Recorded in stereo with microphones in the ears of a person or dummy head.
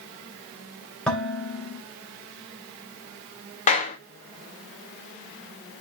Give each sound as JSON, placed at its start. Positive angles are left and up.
{"t": 1.1, "sound": "dishes clattering", "side_deg": 0, "distance_m": 3.0}
{"t": 3.7, "sound": "a clap", "side_deg": 35, "distance_m": 1.5}